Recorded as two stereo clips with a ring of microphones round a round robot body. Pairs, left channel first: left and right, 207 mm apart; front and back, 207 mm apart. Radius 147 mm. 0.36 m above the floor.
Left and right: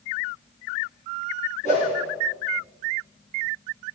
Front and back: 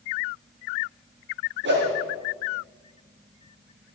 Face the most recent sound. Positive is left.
turn(degrees=155)